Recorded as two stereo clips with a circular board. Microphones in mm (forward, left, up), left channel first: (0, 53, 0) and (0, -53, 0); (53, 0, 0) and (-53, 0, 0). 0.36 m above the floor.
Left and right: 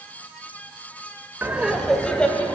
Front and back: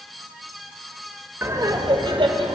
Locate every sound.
1.4 s laughter: 140° right, 1.1 m; by 2.6 s 160° left, 2 m